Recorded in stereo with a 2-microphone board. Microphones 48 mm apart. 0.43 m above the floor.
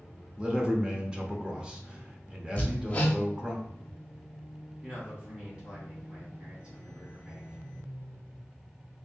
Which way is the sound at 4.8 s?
20° right (ahead or behind).